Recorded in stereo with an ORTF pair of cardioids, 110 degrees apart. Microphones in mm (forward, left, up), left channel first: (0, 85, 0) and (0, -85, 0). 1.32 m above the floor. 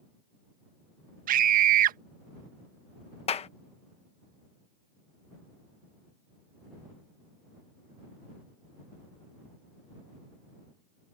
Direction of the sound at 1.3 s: 55° right.